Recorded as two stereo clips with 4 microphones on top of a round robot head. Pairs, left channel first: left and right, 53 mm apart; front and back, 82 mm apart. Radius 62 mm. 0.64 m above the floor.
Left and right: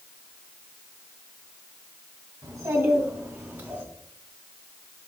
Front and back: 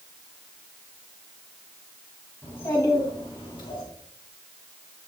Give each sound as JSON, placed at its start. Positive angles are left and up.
{"t": 2.4, "sound": "a child speaking", "azimuth_deg": -65, "distance_m": 3.0}